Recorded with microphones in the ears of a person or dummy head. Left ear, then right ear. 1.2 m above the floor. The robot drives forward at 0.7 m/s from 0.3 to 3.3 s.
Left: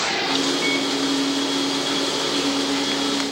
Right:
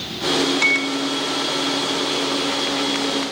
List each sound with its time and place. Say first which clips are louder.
0.6 s a microwave: right 3 dB; 75° right (ahead or behind); by 3.2 s 30° right (ahead or behind)